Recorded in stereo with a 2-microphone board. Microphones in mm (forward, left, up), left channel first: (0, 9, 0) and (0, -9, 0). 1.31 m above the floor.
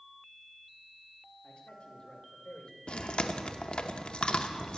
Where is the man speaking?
60° left (ahead or behind), 2.5 m; by 2.8 s 75° left (ahead or behind), 2.5 m.